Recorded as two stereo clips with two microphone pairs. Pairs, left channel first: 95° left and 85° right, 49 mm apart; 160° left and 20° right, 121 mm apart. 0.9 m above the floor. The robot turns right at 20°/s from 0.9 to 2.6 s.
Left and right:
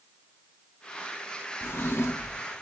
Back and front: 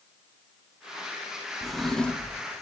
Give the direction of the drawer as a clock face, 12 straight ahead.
10 o'clock.